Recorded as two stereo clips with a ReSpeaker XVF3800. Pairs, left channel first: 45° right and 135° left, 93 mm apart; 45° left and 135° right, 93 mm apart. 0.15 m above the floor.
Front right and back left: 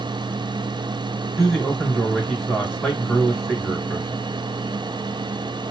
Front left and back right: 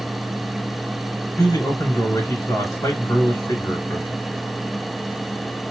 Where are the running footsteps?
I don't hear running footsteps.